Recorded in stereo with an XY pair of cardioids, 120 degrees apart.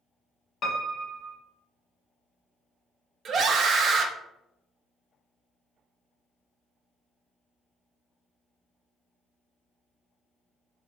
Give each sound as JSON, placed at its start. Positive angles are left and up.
{"t": 0.6, "sound": "a piano", "azimuth_deg": 40, "distance_m": 0.9}
{"t": 3.2, "sound": "a scream", "azimuth_deg": -45, "distance_m": 0.5}